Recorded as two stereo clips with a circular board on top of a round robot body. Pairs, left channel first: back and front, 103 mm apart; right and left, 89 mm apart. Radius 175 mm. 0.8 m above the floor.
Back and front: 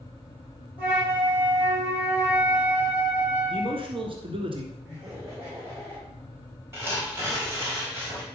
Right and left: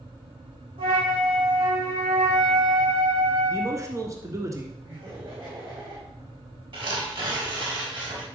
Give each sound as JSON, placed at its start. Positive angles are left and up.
{"t": 0.8, "sound": "a flute", "azimuth_deg": 75, "distance_m": 4.5}
{"t": 3.5, "sound": "a man speaking", "azimuth_deg": 35, "distance_m": 1.8}
{"t": 4.8, "sound": "laughter", "azimuth_deg": 70, "distance_m": 3.5}
{"t": 6.7, "sound": "tearing paper", "azimuth_deg": 65, "distance_m": 4.0}